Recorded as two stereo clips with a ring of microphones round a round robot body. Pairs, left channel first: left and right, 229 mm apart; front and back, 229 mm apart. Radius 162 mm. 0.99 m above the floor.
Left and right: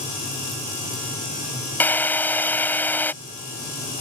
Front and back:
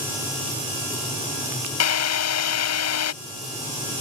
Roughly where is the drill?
Ahead.